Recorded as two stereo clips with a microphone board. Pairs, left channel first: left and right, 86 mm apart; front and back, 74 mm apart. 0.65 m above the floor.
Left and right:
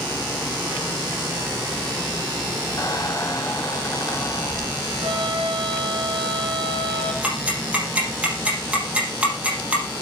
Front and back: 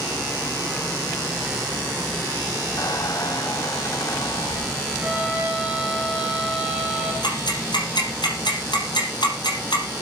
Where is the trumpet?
105° right, 4 m.